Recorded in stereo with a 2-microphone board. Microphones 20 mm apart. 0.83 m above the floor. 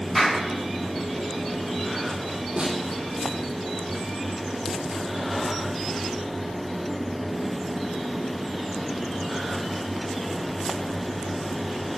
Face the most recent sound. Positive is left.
turn(degrees=-60)  # may be behind; listen again after turning